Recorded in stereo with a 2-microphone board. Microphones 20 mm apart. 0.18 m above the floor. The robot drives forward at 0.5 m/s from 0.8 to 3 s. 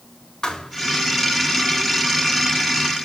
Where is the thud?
30° left (ahead or behind), 6 m.